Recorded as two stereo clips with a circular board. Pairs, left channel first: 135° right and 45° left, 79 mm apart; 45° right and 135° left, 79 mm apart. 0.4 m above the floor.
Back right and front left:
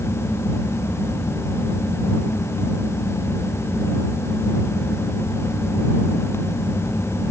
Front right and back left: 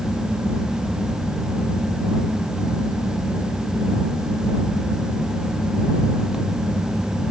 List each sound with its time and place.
Only background noise.